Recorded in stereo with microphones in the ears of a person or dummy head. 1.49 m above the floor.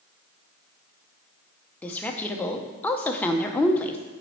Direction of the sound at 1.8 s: 15° left (ahead or behind).